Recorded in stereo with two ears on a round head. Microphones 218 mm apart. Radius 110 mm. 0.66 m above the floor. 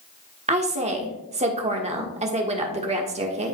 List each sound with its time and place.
0.5 s a woman speaking: 30° right (ahead or behind), 1.3 m